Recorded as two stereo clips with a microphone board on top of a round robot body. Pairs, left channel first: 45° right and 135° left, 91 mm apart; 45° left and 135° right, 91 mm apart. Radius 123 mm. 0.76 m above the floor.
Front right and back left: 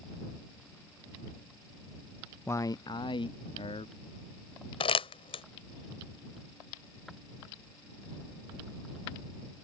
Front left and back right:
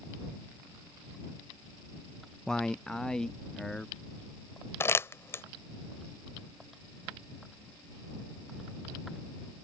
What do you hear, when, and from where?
2.5 s a man speaking: 30° right; by 3.9 s 35° right
4.8 s crumpling: 20° right